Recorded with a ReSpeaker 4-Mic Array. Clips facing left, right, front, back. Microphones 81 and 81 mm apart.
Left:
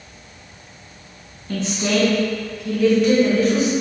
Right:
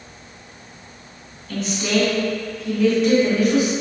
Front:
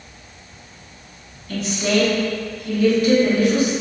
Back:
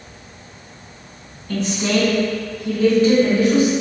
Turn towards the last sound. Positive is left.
turn(degrees=-150)